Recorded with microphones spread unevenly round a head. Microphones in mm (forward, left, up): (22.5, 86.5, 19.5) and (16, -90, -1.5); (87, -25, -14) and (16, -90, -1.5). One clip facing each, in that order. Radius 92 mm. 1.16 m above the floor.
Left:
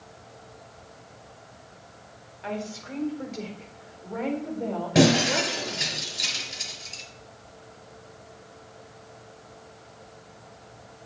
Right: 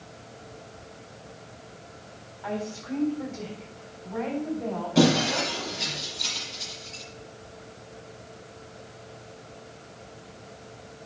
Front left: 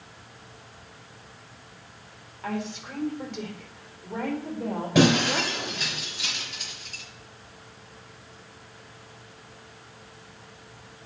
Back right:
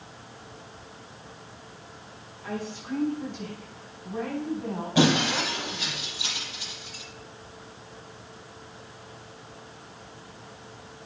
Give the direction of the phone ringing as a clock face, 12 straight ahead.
I don't hear a phone ringing.